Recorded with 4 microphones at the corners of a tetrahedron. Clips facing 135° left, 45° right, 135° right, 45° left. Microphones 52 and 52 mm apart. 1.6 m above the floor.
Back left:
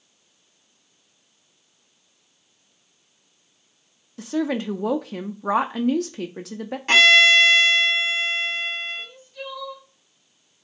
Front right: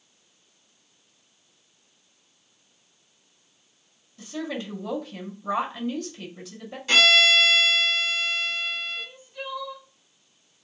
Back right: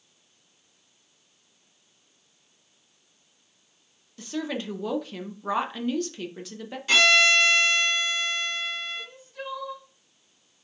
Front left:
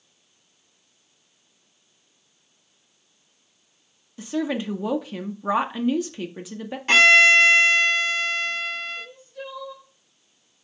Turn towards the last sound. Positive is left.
turn(degrees=-120)